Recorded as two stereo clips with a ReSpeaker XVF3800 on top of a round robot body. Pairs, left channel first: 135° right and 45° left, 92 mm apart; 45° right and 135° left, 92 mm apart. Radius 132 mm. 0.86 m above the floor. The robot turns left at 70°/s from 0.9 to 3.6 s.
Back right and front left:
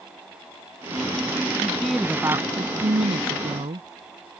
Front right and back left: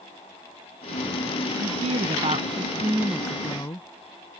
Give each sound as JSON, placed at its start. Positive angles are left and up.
{"t": 1.6, "sound": "a woman speaking", "azimuth_deg": 155}